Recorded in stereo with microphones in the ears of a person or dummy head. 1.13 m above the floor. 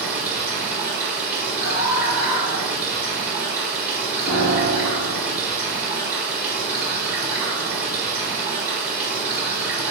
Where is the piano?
50° left (ahead or behind), 1.1 m.